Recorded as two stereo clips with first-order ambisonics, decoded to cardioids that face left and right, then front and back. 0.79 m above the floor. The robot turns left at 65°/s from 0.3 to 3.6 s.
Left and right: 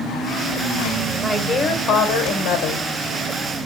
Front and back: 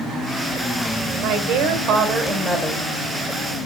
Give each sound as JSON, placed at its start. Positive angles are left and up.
{"t": 1.2, "sound": "a woman speaking", "azimuth_deg": 165, "distance_m": 3.0}